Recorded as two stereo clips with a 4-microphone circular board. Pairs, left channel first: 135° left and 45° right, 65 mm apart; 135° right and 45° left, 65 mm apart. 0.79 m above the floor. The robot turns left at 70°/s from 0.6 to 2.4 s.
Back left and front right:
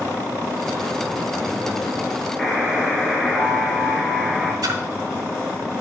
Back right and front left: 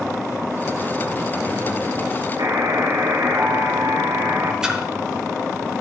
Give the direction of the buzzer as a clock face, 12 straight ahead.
10 o'clock.